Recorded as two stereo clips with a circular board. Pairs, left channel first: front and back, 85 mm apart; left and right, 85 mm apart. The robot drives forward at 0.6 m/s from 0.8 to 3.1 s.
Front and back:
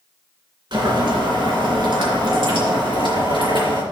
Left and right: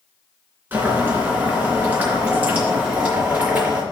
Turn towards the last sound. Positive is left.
turn(degrees=-165)